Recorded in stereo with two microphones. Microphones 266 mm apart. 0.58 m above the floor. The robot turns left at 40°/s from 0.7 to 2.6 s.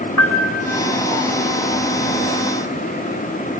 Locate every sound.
0.2 s a piano: 70° left (ahead or behind), 3 m